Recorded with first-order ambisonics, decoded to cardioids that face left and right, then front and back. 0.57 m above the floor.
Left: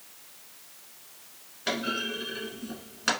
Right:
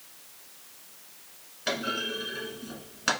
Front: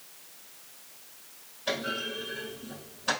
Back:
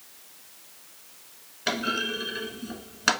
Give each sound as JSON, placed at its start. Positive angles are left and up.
{"t": 1.7, "sound": "a clunk", "azimuth_deg": -175, "distance_m": 1.0}